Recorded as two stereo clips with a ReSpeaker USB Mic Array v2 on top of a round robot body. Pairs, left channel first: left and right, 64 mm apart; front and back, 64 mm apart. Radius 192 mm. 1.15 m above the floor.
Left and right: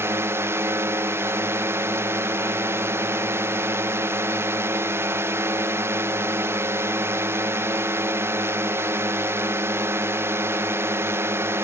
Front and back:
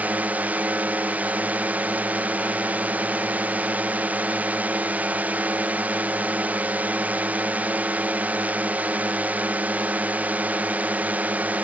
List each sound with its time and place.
0.0 s a drone: 125° right